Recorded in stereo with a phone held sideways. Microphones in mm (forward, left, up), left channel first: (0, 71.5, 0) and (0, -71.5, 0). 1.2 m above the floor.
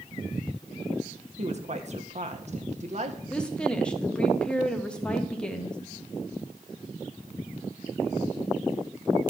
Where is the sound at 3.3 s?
5° left (ahead or behind), 1.2 m.